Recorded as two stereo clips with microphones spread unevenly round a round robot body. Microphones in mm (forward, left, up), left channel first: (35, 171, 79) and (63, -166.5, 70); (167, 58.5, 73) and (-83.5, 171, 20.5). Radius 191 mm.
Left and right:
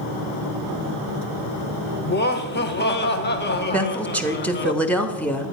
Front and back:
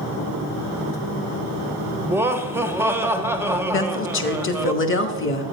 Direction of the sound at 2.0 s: 110° left.